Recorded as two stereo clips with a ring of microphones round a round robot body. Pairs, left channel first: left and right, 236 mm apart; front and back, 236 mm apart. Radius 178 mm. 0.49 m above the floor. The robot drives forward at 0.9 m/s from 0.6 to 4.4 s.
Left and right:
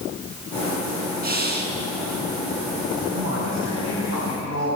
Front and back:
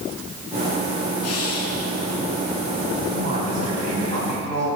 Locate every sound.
1.2 s breathing: 40° right, 3.5 m; by 1.8 s 45° right, 3 m
3.1 s a man speaking: 130° right, 4 m; by 4.7 s 140° right, 5 m